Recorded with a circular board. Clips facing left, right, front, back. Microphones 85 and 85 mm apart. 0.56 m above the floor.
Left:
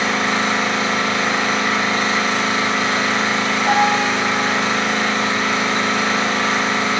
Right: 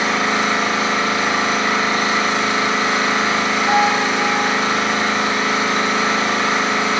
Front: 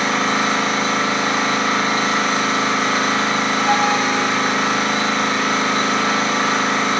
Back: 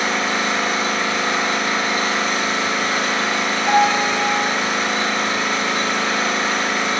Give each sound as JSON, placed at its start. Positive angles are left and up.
{"t": 0.0, "sound": "an engine running", "azimuth_deg": -15, "distance_m": 3.0}
{"t": 3.7, "sound": "a piano", "azimuth_deg": 100, "distance_m": 1.4}